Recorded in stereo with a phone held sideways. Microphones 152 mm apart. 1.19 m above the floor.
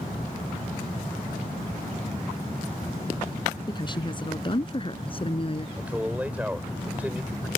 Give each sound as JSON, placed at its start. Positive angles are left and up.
{"t": 3.7, "sound": "a woman speaking", "side_deg": 30}
{"t": 5.8, "sound": "a man speaking", "side_deg": -10}